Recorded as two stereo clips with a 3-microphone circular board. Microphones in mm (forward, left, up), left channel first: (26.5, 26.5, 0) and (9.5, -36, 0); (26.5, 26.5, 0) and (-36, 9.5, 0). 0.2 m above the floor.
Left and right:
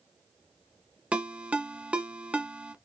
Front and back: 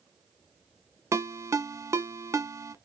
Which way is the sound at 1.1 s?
170° right.